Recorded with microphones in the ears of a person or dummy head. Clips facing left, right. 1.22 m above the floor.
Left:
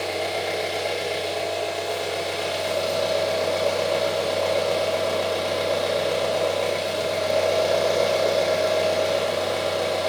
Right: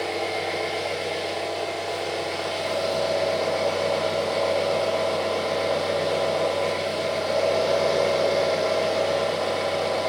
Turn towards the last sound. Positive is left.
turn(degrees=20)  # may be behind; listen again after turning